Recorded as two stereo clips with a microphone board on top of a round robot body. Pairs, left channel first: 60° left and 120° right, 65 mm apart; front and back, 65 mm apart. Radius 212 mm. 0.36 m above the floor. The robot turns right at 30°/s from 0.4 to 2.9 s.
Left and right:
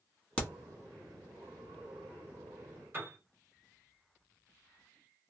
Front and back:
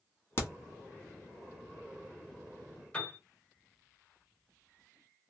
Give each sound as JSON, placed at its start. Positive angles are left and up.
{"t": 0.4, "sound": "a crack", "azimuth_deg": 0, "distance_m": 1.3}
{"t": 2.9, "sound": "a piano", "azimuth_deg": -70, "distance_m": 1.4}